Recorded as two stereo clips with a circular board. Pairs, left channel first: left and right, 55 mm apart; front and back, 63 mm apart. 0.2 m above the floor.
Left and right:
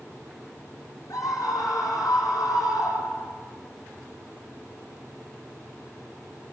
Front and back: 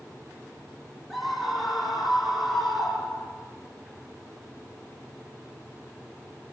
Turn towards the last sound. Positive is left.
turn(degrees=95)